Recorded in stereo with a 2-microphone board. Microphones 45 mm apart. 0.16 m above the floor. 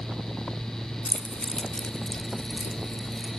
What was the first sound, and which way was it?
Keys jangling, 35° left (ahead or behind).